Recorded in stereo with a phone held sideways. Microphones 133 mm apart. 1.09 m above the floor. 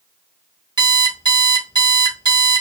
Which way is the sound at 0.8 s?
30° right (ahead or behind).